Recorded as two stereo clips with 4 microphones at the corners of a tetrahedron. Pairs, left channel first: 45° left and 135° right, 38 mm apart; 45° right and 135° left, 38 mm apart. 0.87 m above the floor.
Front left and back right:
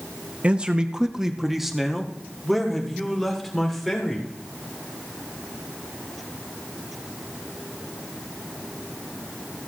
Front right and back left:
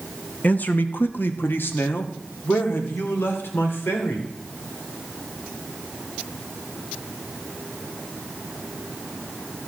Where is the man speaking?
80° right, 0.7 m; by 4.3 s 35° right, 3 m.